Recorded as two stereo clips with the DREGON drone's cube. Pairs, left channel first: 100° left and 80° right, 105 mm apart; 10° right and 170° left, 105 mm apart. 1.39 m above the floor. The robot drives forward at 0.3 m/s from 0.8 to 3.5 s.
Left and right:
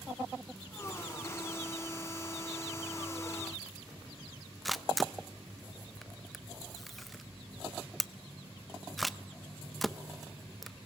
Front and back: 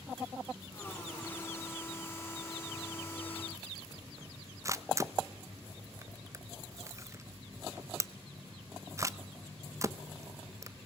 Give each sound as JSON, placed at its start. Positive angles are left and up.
{"t": 4.7, "sound": "a camera shutter", "azimuth_deg": -170, "distance_m": 0.6}